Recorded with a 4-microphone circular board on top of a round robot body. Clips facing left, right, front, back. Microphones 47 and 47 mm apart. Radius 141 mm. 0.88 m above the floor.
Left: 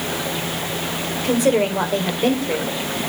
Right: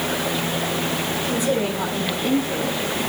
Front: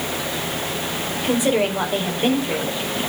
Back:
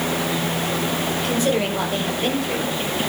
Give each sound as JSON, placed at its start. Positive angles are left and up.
{"t": 1.1, "sound": "a woman speaking", "azimuth_deg": 70, "distance_m": 4.0}